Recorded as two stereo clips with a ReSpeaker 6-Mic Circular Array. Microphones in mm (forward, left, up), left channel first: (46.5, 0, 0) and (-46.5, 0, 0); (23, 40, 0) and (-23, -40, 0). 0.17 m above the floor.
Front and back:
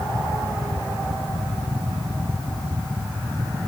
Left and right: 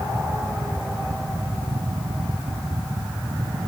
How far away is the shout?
No shout in this recording.